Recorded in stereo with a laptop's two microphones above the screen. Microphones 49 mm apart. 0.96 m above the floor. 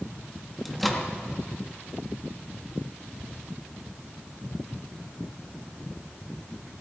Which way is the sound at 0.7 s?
Centre (ahead or behind).